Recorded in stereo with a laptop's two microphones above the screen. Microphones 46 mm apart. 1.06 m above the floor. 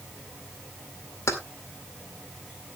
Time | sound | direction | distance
1.3 | keys jangling | 85° left | 2 m